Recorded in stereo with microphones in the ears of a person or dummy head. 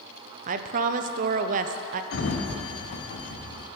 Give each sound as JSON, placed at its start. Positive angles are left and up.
{"t": 0.5, "sound": "a woman speaking", "side_deg": -50, "distance_m": 0.6}
{"t": 2.1, "sound": "a sliding door", "side_deg": 65, "distance_m": 1.1}